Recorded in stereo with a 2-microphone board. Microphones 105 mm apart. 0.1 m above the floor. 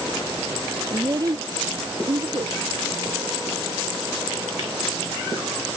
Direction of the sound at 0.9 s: 35° right (ahead or behind).